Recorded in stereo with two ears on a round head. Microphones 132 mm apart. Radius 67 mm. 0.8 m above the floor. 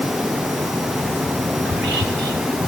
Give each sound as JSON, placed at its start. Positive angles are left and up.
{"t": 1.6, "sound": "whispering", "side_deg": -80, "distance_m": 4.0}